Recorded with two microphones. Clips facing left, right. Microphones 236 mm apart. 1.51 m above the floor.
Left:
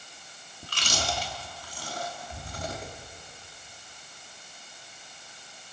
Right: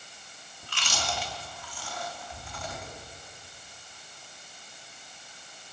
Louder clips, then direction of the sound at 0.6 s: Left 3 dB; 40° left (ahead or behind).